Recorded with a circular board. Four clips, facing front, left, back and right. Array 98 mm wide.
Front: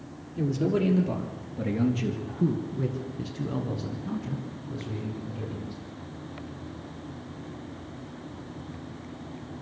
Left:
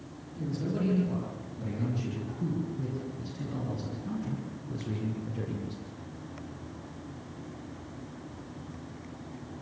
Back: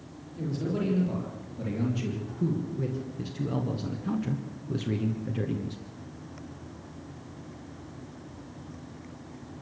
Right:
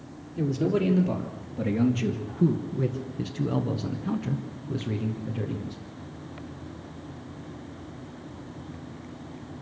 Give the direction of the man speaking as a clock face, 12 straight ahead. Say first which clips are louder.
Right 8 dB, front 5 dB; 2 o'clock.